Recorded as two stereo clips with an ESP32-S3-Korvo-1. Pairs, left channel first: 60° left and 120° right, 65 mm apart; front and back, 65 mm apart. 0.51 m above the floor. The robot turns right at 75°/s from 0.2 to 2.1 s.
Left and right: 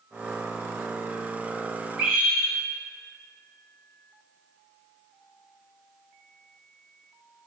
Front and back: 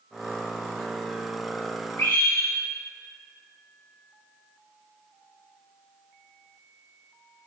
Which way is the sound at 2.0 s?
60° right.